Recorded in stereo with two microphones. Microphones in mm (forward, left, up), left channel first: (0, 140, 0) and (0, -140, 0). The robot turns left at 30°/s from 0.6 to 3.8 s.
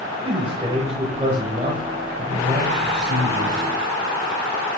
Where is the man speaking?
20° right (ahead or behind), 1.2 m; by 3.7 s 15° right (ahead or behind), 1.2 m.